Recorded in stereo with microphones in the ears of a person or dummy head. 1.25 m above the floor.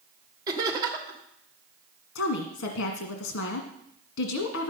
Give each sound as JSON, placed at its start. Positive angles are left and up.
{"t": 0.5, "sound": "laughter", "side_deg": -20, "distance_m": 3.0}
{"t": 2.1, "sound": "a woman speaking", "side_deg": 75, "distance_m": 1.8}